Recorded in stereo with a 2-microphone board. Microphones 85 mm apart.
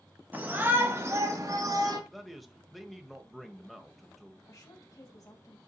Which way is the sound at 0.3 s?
20° right (ahead or behind).